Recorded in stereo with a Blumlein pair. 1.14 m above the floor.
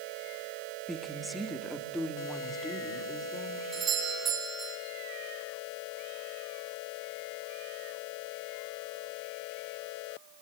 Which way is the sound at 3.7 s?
20° right.